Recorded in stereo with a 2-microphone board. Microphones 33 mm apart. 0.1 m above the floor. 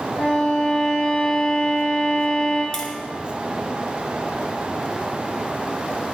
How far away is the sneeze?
No sneeze in this recording.